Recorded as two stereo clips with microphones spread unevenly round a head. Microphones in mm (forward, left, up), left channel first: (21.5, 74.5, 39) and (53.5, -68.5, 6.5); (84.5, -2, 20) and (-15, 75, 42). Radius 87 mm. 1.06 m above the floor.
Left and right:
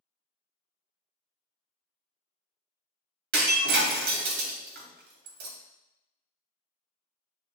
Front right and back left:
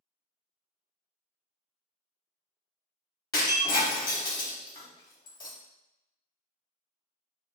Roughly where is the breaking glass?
Right.